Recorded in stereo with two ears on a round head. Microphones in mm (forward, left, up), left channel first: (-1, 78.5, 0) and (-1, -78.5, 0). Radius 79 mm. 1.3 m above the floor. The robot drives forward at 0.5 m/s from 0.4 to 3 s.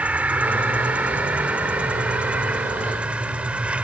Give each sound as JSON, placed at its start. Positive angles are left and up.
{"t": 0.0, "sound": "an insect", "side_deg": -10}